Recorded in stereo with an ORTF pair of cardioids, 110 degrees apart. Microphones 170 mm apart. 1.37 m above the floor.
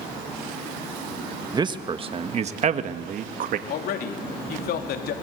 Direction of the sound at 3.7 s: 65° left.